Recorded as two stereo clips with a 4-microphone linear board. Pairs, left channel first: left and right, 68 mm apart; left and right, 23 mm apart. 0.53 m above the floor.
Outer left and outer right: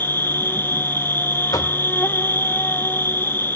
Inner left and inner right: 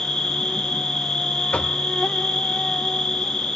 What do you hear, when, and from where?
0.0 s an insect: 30° left (ahead or behind), 0.9 m
1.5 s knocking: 65° left (ahead or behind), 1.2 m